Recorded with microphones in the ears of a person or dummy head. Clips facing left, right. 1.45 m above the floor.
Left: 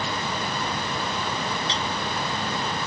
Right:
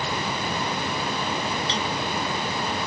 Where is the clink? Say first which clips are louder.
Right 2 dB; 30° right (ahead or behind), 0.6 m.